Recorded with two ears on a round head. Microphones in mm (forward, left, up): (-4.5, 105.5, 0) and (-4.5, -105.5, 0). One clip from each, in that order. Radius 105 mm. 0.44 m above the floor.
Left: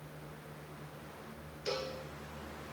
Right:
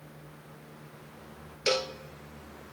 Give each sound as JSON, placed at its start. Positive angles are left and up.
{"t": 1.7, "sound": "a cowbell", "side_deg": -80, "distance_m": 0.6}